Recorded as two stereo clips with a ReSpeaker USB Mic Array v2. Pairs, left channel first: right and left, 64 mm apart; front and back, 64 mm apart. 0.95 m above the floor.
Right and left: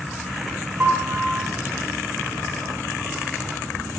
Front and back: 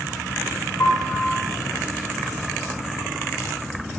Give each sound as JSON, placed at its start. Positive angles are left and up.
{"t": 0.8, "sound": "a piano", "azimuth_deg": 35, "distance_m": 5.0}